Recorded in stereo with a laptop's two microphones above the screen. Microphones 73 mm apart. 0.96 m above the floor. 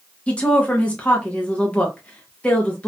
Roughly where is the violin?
I don't hear a violin.